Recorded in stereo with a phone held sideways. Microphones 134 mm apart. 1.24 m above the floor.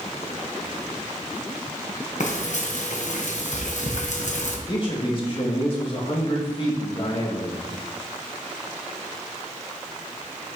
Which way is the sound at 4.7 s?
40° left (ahead or behind).